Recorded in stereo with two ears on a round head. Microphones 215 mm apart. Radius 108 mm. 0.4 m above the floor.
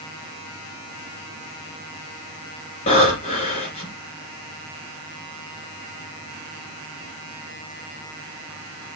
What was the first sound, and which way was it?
Breathing, 25° left (ahead or behind).